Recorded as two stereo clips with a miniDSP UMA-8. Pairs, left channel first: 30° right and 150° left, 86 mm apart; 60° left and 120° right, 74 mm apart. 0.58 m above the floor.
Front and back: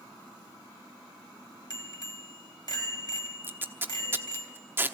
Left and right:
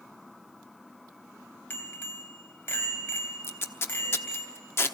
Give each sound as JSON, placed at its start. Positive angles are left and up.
{"t": 1.7, "sound": "a bicycle bell", "azimuth_deg": 5, "distance_m": 2.5}
{"t": 3.4, "sound": "tape being pulled", "azimuth_deg": 100, "distance_m": 1.0}